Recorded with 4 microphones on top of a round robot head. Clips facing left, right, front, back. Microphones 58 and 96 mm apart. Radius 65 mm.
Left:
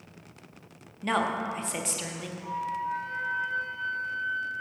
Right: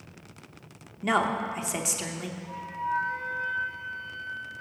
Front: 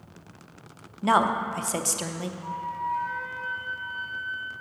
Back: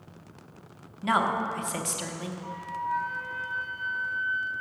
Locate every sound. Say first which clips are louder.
1.0 s a woman speaking: right 2 dB, front 3 dB; 10° right, 0.7 m
2.4 s a flute: left 3 dB, front 3 dB; 55° left, 3.5 m